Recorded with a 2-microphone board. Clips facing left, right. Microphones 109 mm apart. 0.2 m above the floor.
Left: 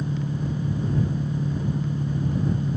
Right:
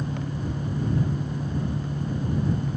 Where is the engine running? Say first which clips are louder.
Left 2 dB; 50° left (ahead or behind).